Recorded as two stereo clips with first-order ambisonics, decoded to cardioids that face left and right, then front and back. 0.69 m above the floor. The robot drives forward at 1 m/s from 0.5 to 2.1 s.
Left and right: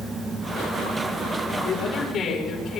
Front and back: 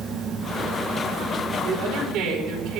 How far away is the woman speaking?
About 3.5 m.